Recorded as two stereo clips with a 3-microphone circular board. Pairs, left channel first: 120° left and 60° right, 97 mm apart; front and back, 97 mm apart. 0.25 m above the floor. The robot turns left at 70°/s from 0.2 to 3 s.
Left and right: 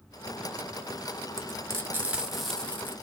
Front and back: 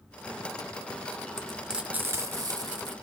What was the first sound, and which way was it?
Frying, 80° right.